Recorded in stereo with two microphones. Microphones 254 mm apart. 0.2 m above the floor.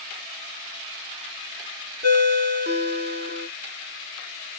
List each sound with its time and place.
2.0 s a ringtone: 40° right (ahead or behind), 0.6 m